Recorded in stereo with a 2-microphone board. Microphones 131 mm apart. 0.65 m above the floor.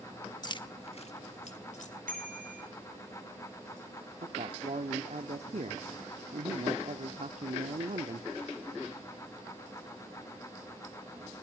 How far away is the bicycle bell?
About 7 m.